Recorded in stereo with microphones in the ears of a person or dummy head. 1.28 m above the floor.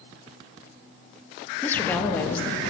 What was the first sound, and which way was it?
A woman speaking, 10° left (ahead or behind).